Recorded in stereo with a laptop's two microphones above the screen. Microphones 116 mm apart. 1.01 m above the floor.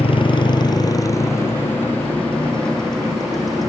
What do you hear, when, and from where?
0.0 s a motorcycle: 50° left (ahead or behind); by 3.7 s centre (ahead or behind)